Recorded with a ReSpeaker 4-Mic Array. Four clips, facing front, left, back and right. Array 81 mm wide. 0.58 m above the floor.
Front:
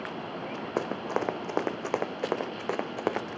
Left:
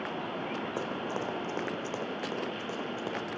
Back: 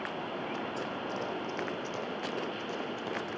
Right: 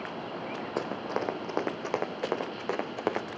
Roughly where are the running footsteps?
Ahead.